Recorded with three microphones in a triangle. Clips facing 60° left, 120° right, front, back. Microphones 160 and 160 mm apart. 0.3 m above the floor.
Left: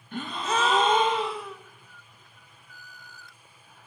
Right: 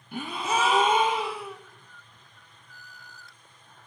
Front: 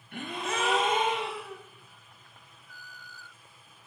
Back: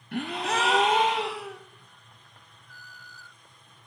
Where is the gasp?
160° left, 0.5 m.